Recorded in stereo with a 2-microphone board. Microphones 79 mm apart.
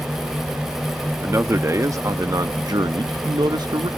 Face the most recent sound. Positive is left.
turn(degrees=-55)  # may be behind; listen again after turning